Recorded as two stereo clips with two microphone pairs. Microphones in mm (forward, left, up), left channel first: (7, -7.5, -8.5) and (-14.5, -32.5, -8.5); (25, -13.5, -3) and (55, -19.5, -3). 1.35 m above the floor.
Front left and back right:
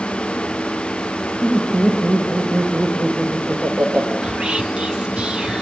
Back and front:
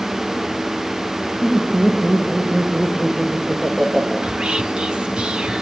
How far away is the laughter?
About 5.5 m.